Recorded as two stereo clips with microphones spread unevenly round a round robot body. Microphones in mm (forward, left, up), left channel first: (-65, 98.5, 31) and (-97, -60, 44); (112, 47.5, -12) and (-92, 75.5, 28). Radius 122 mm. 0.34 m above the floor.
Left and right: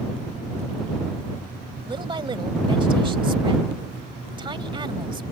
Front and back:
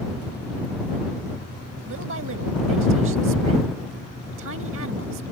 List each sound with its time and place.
1.9 s a woman speaking: 160° right